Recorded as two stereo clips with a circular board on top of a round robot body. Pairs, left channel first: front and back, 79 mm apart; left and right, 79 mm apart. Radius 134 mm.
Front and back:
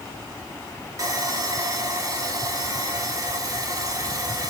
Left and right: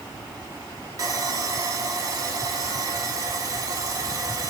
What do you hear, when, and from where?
1.0 s sawing: 135° right, 4 m